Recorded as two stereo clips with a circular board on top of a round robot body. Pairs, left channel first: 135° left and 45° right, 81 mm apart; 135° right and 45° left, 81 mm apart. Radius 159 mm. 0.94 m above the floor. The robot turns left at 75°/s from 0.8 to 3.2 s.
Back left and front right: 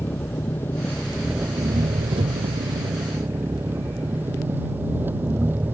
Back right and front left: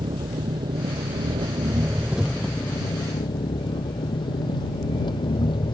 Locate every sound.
0.0 s an engine running: 70° left; by 5.7 s 110° right